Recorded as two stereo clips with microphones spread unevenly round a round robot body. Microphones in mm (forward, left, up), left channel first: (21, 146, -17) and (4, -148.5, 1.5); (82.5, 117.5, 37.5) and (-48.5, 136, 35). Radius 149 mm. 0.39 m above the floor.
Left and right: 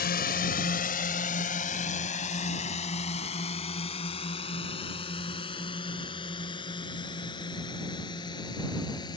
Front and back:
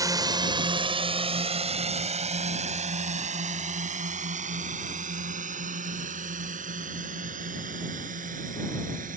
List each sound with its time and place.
0.0 s a drone: 125° left; by 9.2 s 165° left